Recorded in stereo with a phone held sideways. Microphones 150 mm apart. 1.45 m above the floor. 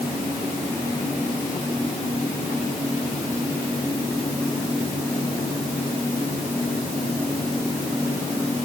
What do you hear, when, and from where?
Only background noise.